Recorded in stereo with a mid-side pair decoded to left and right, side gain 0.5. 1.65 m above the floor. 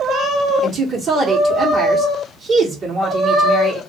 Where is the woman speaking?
45° right, 1.4 m.